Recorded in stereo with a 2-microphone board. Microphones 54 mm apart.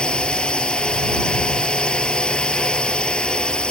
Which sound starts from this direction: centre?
A drone, at 0.0 s.